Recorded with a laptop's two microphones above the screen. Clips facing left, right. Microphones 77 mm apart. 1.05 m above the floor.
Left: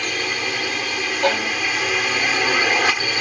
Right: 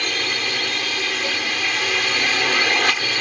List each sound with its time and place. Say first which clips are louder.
0.0 s a drone: left 1 dB; 10° left (ahead or behind)
1.2 s a violin: left 6 dB; 80° left